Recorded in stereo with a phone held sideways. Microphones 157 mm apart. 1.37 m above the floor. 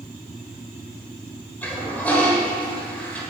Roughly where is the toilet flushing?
Centre.